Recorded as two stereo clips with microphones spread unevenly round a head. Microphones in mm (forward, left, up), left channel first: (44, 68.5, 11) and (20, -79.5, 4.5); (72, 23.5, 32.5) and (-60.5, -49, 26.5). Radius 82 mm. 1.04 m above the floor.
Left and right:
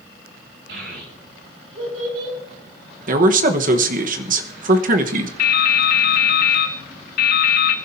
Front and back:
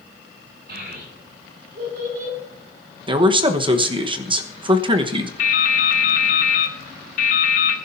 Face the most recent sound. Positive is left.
turn(degrees=70)